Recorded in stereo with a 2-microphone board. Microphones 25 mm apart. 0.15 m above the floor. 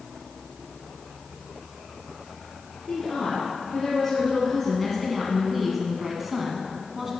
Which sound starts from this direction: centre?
A woman speaking, at 2.9 s.